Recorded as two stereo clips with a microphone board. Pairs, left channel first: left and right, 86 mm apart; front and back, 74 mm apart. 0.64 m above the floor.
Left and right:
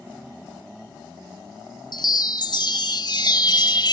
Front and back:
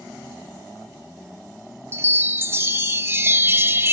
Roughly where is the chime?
Behind left.